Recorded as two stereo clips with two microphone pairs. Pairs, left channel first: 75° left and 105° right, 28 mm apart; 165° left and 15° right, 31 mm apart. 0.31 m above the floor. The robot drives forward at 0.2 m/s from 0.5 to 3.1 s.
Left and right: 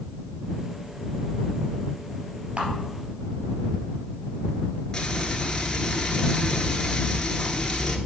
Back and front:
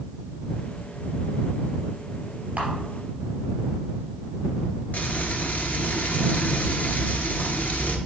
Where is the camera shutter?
65° right, 3 m.